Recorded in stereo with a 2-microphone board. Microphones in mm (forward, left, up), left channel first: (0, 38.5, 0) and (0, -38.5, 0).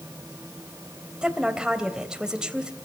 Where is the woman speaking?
10° right (ahead or behind), 3 m.